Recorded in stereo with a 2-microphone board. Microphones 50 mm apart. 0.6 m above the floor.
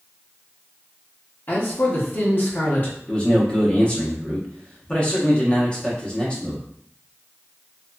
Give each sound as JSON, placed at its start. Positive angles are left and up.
{"t": 1.5, "sound": "a man speaking", "side_deg": 40, "distance_m": 1.0}
{"t": 3.1, "sound": "a man speaking", "side_deg": 20, "distance_m": 0.8}